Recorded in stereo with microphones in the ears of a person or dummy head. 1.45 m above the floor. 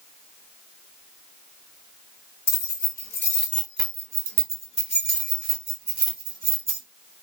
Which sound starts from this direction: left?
Keys jangling, at 2.5 s.